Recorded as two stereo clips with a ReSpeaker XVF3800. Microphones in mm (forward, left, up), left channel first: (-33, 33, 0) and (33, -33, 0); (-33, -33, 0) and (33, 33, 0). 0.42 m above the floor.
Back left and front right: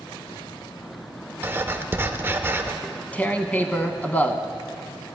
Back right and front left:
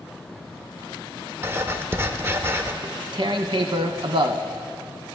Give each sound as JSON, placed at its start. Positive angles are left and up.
{"t": 1.4, "sound": "writing", "azimuth_deg": 0, "distance_m": 0.5}
{"t": 2.8, "sound": "tearing paper", "azimuth_deg": 65, "distance_m": 0.5}